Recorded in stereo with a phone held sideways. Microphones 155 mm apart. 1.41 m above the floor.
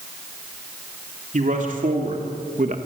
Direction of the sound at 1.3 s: 55° right (ahead or behind).